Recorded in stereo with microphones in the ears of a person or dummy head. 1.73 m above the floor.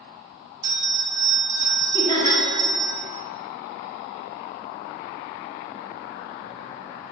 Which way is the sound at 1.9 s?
30° left (ahead or behind).